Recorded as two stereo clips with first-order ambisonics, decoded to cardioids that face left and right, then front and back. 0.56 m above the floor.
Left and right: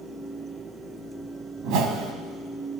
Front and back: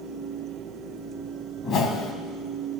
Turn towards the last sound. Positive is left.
turn(degrees=-60)